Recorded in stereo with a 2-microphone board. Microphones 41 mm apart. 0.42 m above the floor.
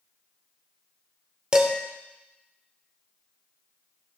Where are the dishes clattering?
20° right (ahead or behind), 0.7 m.